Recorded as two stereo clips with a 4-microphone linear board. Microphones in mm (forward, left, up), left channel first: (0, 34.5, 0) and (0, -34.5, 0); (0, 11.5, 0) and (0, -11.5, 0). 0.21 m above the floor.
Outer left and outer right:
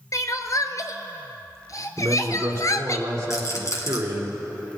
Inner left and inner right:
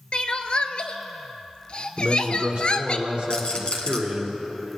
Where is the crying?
50° left (ahead or behind), 0.7 m.